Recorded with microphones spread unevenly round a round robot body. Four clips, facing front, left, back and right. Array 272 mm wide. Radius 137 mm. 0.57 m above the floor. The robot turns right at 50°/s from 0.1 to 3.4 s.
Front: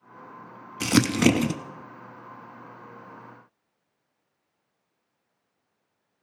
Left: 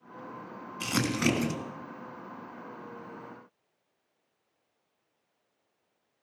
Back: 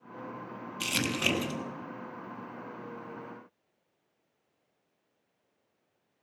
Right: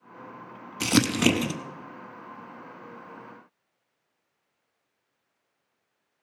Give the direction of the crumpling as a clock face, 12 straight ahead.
1 o'clock.